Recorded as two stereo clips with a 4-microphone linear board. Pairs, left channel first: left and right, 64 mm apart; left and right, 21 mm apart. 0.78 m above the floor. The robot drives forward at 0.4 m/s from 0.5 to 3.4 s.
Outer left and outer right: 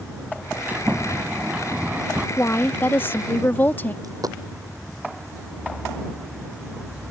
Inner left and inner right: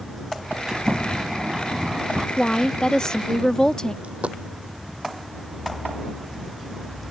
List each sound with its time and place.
0.7 s a sliding door: 25° right (ahead or behind)
2.4 s a woman speaking: 40° left (ahead or behind); by 3.9 s 30° left (ahead or behind)
4.0 s a dropped coin: 75° right (ahead or behind)